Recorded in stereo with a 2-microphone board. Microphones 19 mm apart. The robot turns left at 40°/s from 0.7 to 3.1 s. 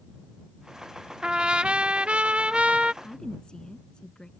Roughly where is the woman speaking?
Left.